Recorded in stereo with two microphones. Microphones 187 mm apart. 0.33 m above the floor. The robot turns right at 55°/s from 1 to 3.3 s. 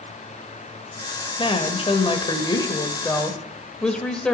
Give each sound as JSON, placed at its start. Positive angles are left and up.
{"t": 1.4, "sound": "a woman speaking", "azimuth_deg": 65, "distance_m": 1.2}